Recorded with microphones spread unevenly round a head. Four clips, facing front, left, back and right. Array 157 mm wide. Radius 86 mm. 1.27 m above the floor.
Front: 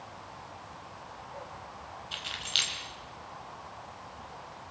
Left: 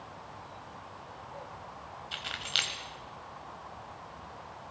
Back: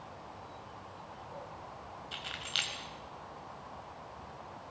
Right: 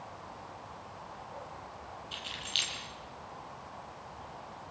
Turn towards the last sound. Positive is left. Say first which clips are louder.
# left 4 dB, front 1 dB
turn(degrees=80)